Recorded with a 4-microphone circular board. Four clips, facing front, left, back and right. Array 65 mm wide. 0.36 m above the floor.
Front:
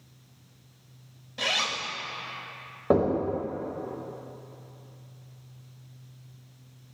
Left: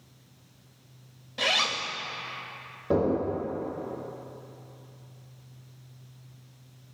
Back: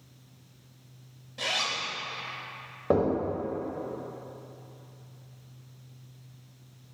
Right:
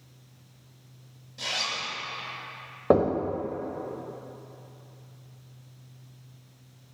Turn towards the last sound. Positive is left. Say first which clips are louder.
# right 4 dB, front 2 dB
turn(degrees=-80)